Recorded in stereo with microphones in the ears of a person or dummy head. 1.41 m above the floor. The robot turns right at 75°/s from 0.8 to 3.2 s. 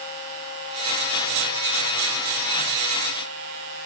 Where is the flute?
No flute in this recording.